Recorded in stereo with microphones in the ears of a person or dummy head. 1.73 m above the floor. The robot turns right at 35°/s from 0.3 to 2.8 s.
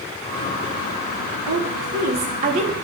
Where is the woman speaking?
70° right, 1.2 m; by 2.7 s 30° right, 1.2 m.